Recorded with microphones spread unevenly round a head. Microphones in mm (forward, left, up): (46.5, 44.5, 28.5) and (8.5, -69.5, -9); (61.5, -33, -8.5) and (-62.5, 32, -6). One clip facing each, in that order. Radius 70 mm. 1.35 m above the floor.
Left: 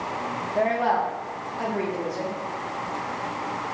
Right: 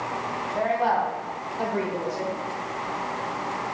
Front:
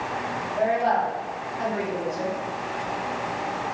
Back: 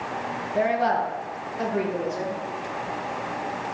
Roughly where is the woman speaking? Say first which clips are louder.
Left 1 dB, even; behind left.